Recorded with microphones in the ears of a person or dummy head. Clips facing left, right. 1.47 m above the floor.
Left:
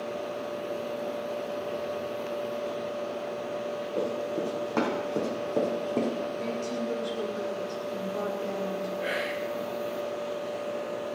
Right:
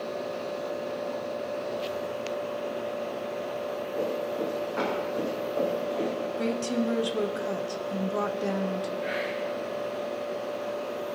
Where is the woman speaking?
80° right, 1.6 m.